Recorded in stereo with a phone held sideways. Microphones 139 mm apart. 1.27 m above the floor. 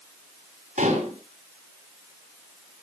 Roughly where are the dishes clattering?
Right.